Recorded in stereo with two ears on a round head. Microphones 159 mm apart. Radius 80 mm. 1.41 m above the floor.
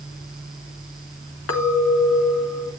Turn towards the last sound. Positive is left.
turn(degrees=85)